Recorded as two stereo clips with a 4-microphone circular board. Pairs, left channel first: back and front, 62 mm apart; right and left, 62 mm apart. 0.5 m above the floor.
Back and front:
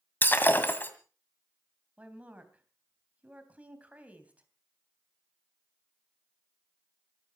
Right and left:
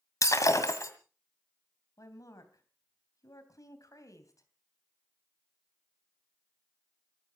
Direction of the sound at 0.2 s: 120° right.